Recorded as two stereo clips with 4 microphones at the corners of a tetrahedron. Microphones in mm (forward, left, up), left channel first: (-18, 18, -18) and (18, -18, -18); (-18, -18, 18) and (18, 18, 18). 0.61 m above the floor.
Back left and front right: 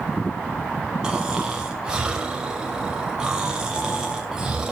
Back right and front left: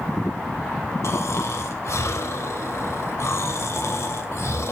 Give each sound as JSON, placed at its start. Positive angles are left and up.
{"t": 1.0, "sound": "snoring", "azimuth_deg": -120, "distance_m": 3.0}